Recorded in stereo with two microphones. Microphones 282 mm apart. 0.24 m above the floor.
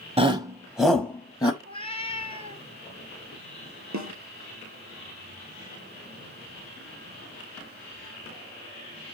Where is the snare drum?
85° right, 1.5 m.